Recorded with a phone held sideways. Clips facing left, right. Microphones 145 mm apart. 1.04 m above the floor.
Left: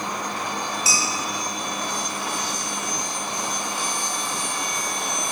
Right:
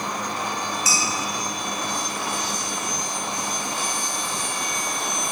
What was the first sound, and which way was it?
Dishes clattering, 30° left (ahead or behind).